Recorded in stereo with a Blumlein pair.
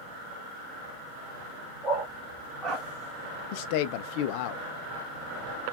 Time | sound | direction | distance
1.8 | a dog barking | 25° right | 3 m
3.5 | a man speaking | 45° left | 0.6 m